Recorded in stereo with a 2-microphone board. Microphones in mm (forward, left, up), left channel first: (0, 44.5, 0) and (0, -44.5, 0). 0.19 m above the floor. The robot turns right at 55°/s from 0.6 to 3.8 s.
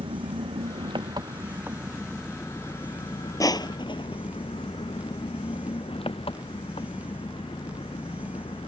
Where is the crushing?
40° left (ahead or behind); by 4.2 s 55° left (ahead or behind).